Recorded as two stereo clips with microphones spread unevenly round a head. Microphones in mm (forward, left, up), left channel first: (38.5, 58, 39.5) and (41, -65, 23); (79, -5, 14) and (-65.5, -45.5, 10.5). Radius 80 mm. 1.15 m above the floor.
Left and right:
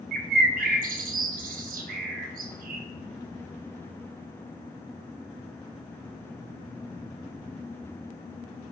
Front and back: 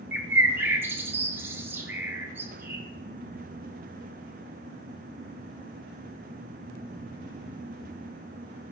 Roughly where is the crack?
No crack in this recording.